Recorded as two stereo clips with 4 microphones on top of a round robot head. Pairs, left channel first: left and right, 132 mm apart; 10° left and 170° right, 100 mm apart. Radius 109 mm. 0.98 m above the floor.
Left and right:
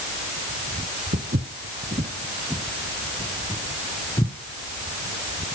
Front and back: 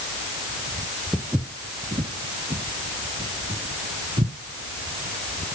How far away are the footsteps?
About 1.8 m.